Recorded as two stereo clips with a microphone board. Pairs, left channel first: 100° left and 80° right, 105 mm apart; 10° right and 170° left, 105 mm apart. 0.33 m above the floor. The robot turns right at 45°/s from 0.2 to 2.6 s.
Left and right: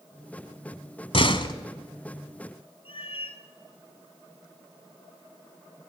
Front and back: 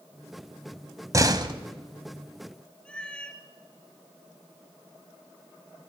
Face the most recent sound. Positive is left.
turn(degrees=70)